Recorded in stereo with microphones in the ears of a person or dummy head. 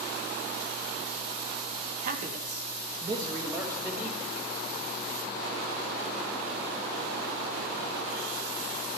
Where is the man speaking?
50° right (ahead or behind), 1.6 m; by 4.3 s 5° right (ahead or behind), 2.5 m.